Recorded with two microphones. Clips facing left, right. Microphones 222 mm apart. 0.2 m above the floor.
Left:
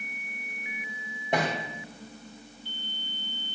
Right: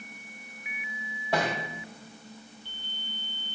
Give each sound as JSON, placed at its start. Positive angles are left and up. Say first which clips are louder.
{"t": 1.3, "sound": "a thud", "louder": "left 1 dB", "side_deg": 20, "distance_m": 5.0}